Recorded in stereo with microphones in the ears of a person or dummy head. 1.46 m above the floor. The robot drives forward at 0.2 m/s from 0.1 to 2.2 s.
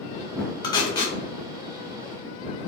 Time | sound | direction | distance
0.6 | tape being pulled | 25° left (ahead or behind) | 0.5 m